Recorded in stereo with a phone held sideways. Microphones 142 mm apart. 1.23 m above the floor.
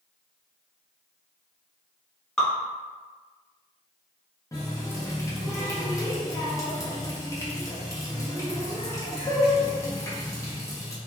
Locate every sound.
2.4 s dripping: 5° left (ahead or behind), 1.1 m
4.5 s a running tap: 20° left (ahead or behind), 0.6 m